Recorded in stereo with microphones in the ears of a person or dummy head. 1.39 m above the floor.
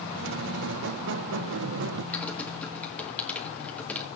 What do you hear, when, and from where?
0.2 s a squeak: 70° right (ahead or behind), 0.7 m
2.1 s typing on a keyboard: 10° left (ahead or behind), 1.7 m